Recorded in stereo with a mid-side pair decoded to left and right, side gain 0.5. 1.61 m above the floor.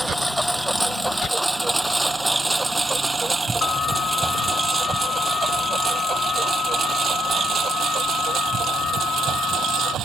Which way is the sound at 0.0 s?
5° right.